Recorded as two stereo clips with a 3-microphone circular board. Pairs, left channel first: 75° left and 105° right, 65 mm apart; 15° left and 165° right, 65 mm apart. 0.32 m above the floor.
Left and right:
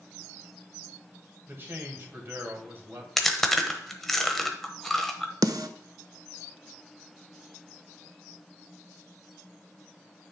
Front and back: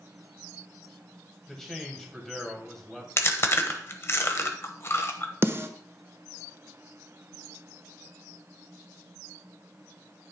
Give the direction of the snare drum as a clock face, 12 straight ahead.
4 o'clock.